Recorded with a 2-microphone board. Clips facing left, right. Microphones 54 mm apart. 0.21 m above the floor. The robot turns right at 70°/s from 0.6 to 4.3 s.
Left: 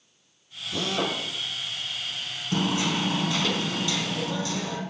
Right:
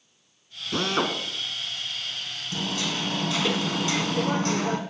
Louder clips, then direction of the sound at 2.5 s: Left 5 dB; 125° left.